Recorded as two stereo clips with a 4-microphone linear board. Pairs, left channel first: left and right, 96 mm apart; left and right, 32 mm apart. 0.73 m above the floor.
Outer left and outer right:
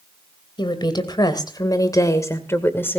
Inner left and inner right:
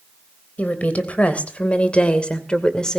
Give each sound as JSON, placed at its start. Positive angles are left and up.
{"t": 0.6, "sound": "a woman speaking", "side_deg": 50, "distance_m": 3.0}